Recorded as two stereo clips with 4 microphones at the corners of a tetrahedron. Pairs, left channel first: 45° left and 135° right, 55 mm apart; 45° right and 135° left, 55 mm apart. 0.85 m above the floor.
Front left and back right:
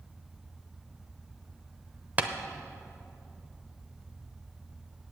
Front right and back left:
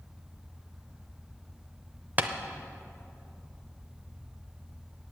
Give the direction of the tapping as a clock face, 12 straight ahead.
6 o'clock.